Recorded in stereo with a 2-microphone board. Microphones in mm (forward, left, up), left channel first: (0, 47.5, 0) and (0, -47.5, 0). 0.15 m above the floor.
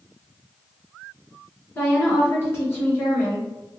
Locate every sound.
1.8 s a woman speaking: 25° left (ahead or behind), 1.8 m